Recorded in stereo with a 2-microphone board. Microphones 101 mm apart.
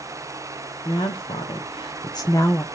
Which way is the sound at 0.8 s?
75° left (ahead or behind).